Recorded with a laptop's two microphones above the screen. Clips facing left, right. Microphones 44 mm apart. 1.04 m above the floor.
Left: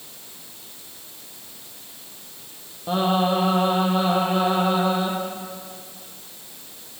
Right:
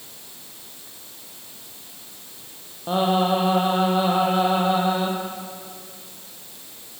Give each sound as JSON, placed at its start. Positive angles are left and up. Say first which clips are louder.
{"t": 2.9, "sound": "singing", "louder": "right 1 dB", "side_deg": -10, "distance_m": 6.5}